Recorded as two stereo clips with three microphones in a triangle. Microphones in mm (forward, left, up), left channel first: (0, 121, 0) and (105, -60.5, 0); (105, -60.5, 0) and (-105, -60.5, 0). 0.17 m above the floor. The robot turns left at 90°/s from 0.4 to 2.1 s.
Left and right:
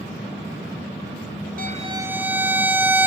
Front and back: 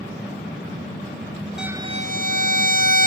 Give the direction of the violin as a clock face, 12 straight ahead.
3 o'clock.